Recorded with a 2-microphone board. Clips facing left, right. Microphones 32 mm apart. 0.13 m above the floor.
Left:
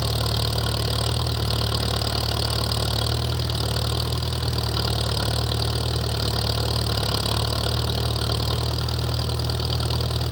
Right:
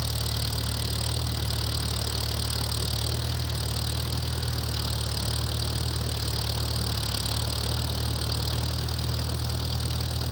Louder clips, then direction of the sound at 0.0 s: Left 6 dB; 70° left (ahead or behind).